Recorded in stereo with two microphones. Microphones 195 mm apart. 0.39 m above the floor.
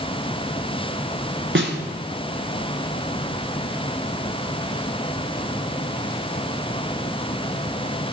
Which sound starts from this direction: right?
A snare drum, at 1.6 s.